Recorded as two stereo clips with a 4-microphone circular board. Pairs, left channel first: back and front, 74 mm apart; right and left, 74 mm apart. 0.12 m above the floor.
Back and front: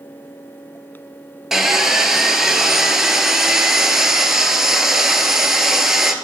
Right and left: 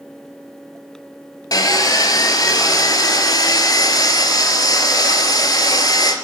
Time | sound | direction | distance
1.5 | sawing | 85° right | 0.6 m